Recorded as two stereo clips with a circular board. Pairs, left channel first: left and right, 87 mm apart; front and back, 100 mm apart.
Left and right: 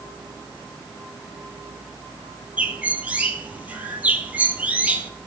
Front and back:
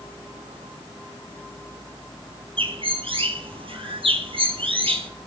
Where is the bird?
160° right, 1.1 m.